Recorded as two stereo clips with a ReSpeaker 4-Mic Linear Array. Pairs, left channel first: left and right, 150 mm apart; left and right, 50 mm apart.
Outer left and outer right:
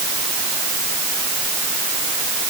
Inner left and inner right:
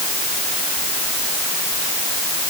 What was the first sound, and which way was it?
Only background noise.